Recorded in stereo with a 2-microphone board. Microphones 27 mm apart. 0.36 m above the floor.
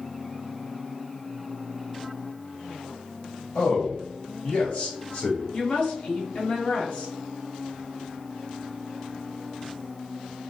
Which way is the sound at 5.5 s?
50° left (ahead or behind).